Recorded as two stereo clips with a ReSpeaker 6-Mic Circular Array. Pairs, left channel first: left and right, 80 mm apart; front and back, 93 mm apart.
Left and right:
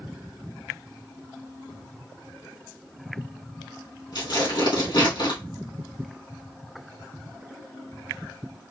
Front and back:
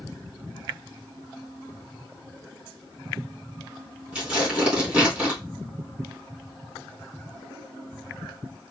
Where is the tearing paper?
100° left, 2.5 m.